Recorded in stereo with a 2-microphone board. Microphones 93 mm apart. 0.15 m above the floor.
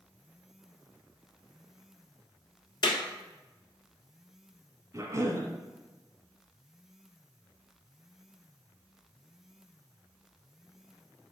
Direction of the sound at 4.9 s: 35° right (ahead or behind).